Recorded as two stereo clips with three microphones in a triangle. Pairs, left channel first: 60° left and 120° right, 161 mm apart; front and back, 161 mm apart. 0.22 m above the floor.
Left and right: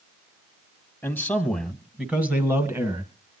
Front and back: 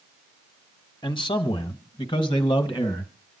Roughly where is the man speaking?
Ahead.